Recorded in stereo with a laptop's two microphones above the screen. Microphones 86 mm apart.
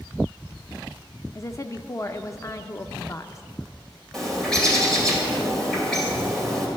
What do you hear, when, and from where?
1.4 s a woman speaking: 35° left (ahead or behind), 0.5 m
4.1 s a bird: 5° left (ahead or behind), 2.5 m